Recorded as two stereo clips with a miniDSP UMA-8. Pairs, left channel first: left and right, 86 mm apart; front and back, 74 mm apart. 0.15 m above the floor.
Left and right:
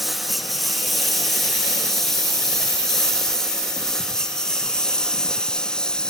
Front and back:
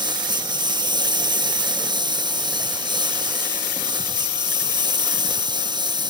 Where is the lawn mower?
Straight behind; by 6.1 s 170° left.